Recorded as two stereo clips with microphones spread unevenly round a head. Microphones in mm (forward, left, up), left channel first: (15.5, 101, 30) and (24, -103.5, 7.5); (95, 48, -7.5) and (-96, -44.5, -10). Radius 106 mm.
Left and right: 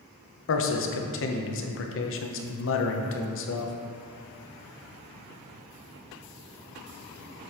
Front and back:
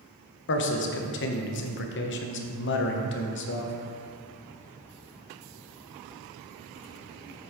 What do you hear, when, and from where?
0.5 s a man speaking: 65° left, 0.9 m